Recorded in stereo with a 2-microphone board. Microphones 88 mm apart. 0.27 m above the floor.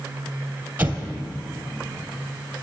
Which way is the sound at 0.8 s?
20° right (ahead or behind).